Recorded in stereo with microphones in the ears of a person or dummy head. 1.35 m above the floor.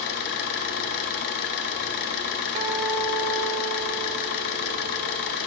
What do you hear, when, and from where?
0.0 s an engine running: 55° left (ahead or behind), 0.8 m
2.5 s a guitar: 35° right (ahead or behind), 1.3 m